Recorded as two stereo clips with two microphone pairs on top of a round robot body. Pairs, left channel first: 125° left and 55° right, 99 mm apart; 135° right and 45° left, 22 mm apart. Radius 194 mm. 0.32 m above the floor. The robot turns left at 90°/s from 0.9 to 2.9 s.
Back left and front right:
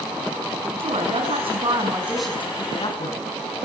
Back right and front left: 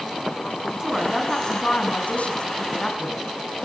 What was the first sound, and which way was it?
A woman speaking, 30° right.